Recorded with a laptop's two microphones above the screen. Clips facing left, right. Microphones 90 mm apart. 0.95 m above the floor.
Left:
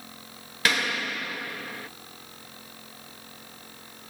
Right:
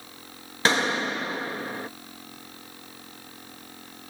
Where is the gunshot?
30° right (ahead or behind).